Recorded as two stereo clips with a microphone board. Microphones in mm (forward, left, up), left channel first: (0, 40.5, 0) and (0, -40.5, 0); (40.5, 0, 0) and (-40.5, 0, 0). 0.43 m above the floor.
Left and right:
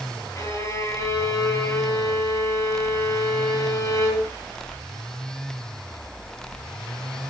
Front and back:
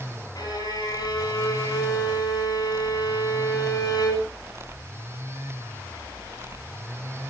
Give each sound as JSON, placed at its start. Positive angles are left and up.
{"t": 0.3, "sound": "a violin", "azimuth_deg": 35, "distance_m": 8.5}